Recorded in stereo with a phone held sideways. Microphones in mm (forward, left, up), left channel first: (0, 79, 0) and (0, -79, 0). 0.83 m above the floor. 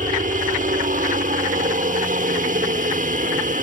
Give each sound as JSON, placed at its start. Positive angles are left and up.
{"t": 0.0, "sound": "a helicopter", "side_deg": -60}